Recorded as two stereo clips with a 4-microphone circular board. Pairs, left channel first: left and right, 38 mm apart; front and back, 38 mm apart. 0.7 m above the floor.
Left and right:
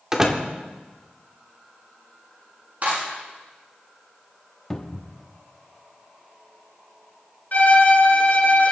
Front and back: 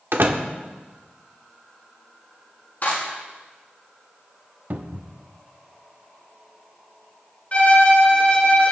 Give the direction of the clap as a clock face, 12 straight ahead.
1 o'clock.